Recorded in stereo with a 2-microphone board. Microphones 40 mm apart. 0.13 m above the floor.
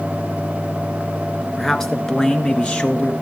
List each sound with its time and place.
1.6 s a man speaking: 10° left (ahead or behind), 1.6 m; by 3.1 s 40° left (ahead or behind), 1.6 m